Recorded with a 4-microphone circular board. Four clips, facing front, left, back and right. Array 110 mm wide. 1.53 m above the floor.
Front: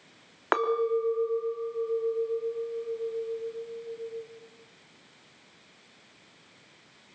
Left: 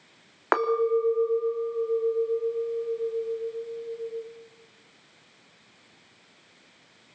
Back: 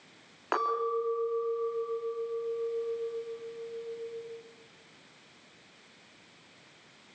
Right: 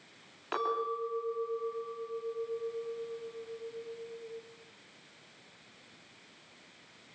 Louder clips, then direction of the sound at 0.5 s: Left 10 dB, front 4 dB; 70° left.